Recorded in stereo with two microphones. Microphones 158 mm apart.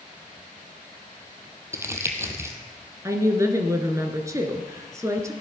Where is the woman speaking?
20° right (ahead or behind), 1.8 m.